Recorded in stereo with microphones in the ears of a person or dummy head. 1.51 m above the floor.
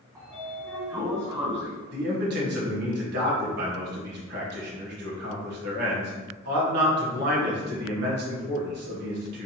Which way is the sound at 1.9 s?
70° right (ahead or behind).